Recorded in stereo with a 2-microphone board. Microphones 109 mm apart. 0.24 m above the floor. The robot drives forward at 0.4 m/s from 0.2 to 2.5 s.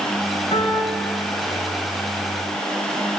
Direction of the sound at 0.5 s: 65° left (ahead or behind).